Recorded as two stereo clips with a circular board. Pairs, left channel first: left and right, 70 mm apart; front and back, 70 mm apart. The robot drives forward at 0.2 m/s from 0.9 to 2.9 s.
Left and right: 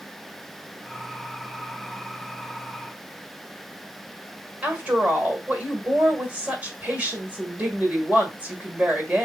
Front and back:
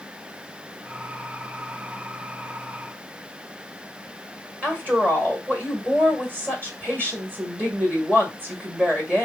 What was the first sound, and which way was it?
A woman speaking, 150° right.